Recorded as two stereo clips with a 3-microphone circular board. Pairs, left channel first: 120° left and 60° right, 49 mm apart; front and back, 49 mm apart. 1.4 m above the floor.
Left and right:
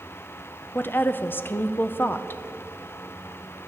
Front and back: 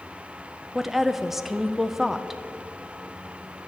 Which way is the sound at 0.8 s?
95° left.